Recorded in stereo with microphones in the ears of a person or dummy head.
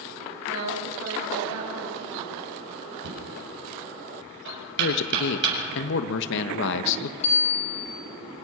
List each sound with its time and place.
0.5 s a woman speaking: 85° right, 7.5 m
3.0 s knocking: 65° right (ahead or behind), 8 m
4.8 s a man speaking: 60° left (ahead or behind), 1.5 m
7.2 s a bicycle bell: 40° left (ahead or behind), 6 m